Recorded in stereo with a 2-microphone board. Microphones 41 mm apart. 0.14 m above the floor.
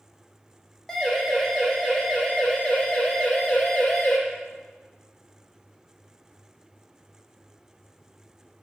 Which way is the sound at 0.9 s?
15° left (ahead or behind).